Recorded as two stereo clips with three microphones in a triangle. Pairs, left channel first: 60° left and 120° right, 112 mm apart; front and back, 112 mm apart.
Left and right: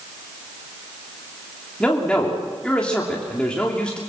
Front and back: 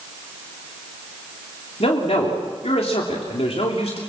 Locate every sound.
1.8 s a man speaking: 20° right, 3 m